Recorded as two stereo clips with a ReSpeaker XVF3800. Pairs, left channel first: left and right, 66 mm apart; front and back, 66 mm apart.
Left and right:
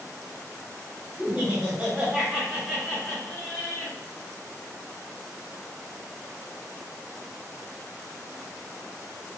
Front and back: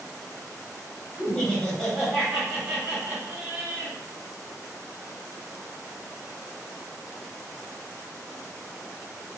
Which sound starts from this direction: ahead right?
Laughter, at 1.2 s.